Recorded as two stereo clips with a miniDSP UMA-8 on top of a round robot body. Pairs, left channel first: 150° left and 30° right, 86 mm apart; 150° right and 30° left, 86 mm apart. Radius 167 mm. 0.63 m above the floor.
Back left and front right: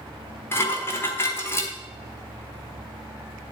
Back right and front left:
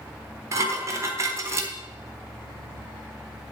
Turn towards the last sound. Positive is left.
turn(degrees=85)